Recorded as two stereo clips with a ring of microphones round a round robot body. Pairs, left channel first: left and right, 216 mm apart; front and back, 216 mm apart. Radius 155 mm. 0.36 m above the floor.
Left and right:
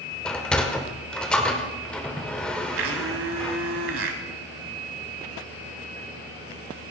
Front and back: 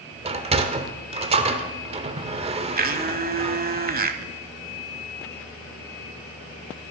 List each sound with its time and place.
0.2 s a sliding door: 170° left, 1.0 m
2.8 s a blender: 130° right, 1.2 m